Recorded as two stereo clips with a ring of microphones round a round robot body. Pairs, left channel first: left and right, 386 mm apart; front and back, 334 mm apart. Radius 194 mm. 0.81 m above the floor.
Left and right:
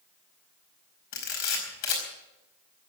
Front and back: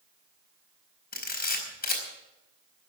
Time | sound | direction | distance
1.1 | a camera shutter | 65° left | 5 m